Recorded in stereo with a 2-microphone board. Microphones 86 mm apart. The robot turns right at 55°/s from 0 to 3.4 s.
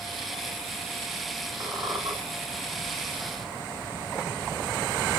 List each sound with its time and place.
1.6 s a squeak: 150° right, 2.5 m; by 2.1 s 120° right, 2.5 m